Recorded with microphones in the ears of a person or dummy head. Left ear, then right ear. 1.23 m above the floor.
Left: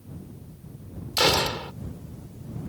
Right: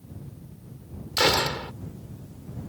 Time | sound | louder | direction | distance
1.2 | a gunshot | even | 5° right (ahead or behind) | ?